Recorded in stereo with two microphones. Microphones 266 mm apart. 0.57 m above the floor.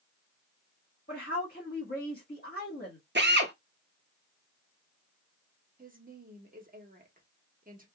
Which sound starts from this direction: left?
A woman speaking, at 1.1 s.